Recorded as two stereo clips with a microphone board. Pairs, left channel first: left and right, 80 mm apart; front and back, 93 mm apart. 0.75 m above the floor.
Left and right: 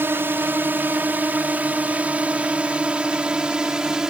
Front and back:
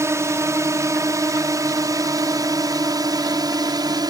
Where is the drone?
140° right; by 4.1 s 170° right.